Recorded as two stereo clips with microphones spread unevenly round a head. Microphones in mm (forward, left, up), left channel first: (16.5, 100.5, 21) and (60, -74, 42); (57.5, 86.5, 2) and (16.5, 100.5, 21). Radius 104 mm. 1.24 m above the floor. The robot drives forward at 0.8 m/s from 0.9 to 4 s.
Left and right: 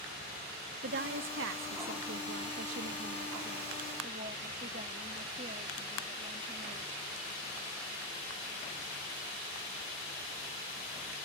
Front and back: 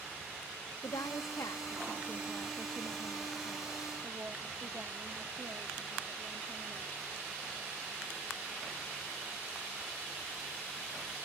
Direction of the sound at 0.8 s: 55° right.